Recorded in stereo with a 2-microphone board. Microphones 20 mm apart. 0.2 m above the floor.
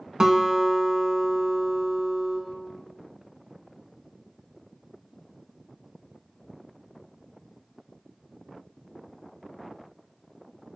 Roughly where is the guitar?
Right.